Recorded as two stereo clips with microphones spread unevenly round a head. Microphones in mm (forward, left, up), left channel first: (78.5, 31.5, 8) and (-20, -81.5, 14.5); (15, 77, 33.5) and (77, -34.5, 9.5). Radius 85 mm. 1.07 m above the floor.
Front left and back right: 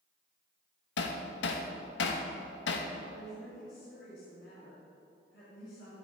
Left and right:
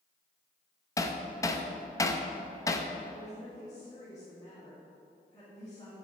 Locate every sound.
1.0 s hammering: 55° left, 0.8 m
3.1 s a woman speaking: 55° left, 2.5 m